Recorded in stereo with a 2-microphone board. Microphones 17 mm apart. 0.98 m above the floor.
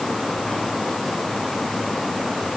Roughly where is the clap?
I don't hear a clap.